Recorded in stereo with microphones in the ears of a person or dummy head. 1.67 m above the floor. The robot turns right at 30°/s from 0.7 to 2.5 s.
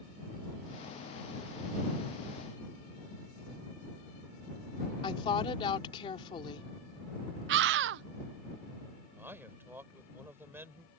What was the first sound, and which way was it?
A woman speaking, 25° left (ahead or behind).